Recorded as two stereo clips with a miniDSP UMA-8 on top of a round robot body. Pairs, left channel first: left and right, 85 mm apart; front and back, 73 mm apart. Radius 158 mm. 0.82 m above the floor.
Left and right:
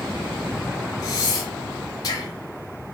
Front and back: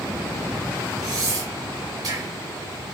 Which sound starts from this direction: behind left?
Breathing, at 1.0 s.